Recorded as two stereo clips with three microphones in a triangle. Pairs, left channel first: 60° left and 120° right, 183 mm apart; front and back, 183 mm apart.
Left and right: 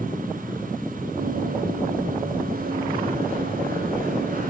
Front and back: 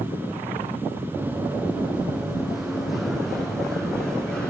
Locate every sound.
1.2 s running footsteps: 100° right, 2.5 m; by 4.5 s 85° right, 5.5 m